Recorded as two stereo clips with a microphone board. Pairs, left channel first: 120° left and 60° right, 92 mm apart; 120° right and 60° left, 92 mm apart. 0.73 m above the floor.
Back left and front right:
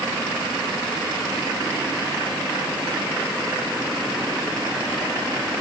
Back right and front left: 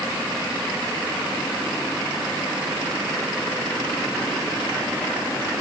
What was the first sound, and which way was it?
Only background noise.